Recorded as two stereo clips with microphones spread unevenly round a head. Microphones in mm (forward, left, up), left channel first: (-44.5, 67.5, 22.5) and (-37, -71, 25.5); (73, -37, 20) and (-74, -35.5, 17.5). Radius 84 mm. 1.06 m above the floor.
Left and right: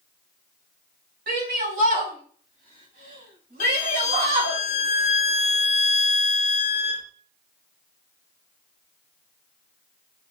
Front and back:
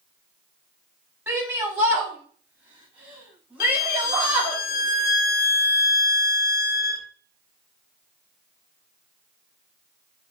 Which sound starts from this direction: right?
A shout, at 1.3 s.